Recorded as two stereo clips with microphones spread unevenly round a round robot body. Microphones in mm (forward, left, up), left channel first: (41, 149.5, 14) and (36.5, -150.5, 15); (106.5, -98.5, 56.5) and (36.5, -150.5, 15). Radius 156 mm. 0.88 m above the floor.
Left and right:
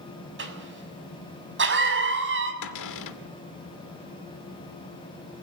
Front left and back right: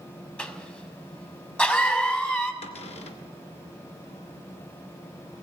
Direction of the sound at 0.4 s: 40° right.